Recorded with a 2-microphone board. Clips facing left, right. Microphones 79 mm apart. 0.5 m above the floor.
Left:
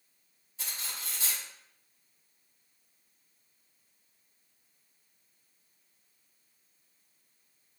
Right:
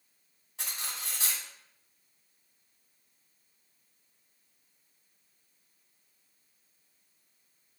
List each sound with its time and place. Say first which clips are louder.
0.6 s cutlery clinking: right 2 dB; 70° right (ahead or behind), 2.5 m